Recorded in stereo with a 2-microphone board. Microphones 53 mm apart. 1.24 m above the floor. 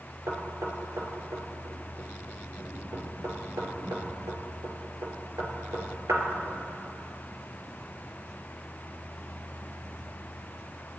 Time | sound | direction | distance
0.3 | knocking | 85° right | 3 m